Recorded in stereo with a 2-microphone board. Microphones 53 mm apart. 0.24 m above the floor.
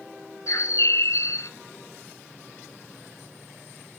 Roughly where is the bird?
Left.